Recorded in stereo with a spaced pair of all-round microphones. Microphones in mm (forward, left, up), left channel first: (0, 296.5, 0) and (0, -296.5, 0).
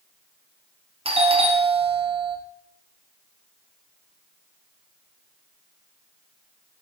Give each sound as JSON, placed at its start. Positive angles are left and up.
{"t": 1.1, "sound": "a doorbell", "side_deg": -10, "distance_m": 0.7}